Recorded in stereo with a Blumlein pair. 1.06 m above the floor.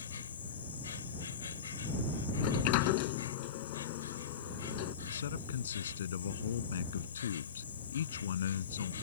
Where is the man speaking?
60° left.